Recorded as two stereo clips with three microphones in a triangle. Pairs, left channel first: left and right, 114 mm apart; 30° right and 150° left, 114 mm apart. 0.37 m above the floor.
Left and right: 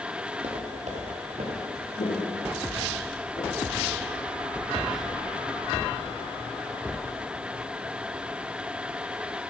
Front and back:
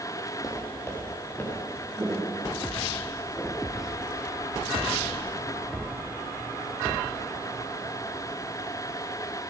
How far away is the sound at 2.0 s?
About 2.5 m.